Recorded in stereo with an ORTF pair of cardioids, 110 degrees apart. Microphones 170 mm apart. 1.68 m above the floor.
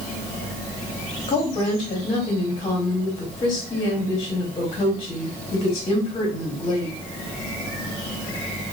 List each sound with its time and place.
1.3 s a woman speaking: 30° left, 1.3 m